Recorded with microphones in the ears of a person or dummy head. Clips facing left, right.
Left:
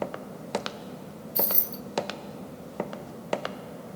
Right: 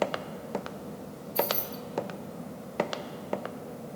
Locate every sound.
1.4 s keys jangling: 20° left (ahead or behind), 1.0 m